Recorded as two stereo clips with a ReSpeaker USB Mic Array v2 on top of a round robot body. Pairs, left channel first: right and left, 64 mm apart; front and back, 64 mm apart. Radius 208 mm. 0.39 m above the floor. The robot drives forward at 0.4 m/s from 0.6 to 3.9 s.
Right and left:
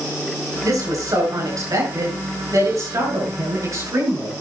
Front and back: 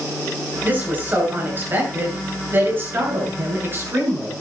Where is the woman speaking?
120° left, 7 m; by 4.3 s 125° left, 8 m.